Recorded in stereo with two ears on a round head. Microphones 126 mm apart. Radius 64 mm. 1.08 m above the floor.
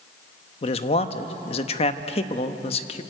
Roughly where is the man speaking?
Left.